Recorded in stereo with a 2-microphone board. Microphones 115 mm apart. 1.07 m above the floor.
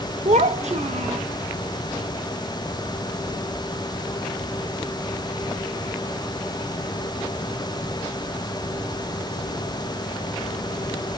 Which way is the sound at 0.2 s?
75° right (ahead or behind).